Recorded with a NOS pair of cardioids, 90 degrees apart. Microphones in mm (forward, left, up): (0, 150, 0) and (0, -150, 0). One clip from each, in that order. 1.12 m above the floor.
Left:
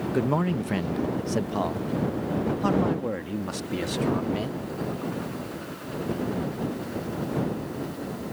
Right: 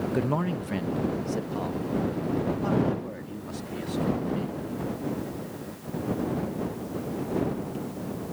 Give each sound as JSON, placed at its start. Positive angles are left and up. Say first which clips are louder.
{"t": 0.1, "sound": "a man speaking", "louder": "left 4 dB", "azimuth_deg": 5}